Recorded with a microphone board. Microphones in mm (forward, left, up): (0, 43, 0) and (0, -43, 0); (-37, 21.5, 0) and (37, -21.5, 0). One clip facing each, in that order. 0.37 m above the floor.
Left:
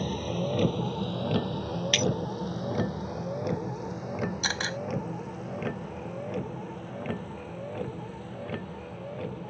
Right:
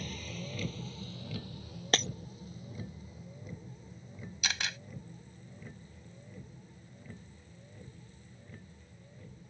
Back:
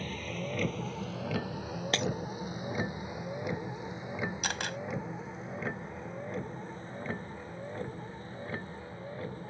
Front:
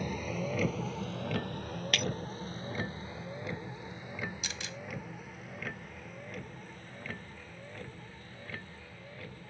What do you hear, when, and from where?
0.0 s a vehicle: 45° left; by 9.5 s 90° left
1.9 s breaking glass: 150° right
4.4 s a camera shutter: 140° left